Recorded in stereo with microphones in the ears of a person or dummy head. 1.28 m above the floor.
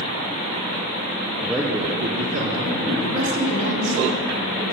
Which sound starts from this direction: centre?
A man speaking, at 1.4 s.